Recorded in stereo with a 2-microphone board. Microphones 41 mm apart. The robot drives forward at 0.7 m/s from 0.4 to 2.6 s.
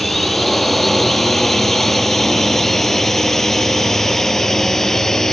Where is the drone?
5° left (ahead or behind); by 5.3 s 10° left (ahead or behind).